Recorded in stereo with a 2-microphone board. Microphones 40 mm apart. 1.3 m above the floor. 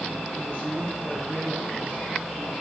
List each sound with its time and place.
0.3 s a woman speaking: 25° left (ahead or behind), 4.5 m